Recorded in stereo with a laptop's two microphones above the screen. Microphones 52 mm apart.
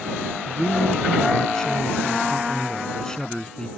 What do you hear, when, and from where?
0.5 s a man speaking: 15° left (ahead or behind)